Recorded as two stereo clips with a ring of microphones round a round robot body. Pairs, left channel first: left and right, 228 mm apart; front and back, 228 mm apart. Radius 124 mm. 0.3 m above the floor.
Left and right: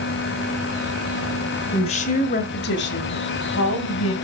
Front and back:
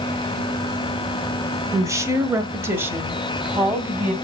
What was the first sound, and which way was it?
A woman speaking, 120° left.